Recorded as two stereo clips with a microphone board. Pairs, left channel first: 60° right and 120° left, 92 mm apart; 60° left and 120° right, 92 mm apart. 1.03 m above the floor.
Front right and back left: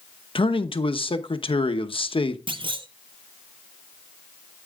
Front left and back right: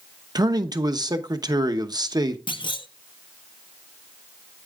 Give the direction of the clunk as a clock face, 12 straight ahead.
9 o'clock.